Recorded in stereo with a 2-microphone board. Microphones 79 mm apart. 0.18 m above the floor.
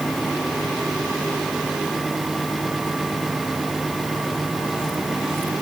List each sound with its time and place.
Only background noise.